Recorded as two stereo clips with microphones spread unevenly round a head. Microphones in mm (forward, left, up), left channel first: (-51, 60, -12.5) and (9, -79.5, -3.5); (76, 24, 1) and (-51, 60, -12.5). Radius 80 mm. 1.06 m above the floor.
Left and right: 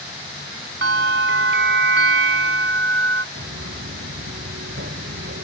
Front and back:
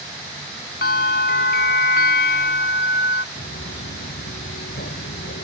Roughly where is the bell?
Ahead right.